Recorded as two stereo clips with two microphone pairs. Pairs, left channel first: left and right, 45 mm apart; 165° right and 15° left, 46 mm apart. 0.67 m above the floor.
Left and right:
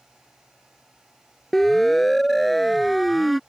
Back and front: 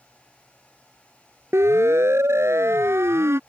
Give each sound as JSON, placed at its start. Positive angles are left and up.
{"t": 1.5, "sound": "a siren", "azimuth_deg": 10}